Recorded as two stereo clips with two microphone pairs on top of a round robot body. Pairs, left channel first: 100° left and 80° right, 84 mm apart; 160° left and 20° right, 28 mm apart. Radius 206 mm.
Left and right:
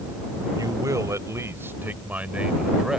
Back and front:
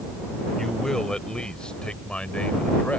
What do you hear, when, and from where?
0.6 s a man speaking: 130° right; by 3.0 s 165° right